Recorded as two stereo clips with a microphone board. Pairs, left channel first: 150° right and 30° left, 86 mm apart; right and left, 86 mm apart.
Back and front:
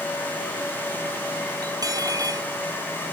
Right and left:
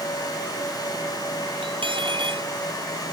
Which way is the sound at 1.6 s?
75° left.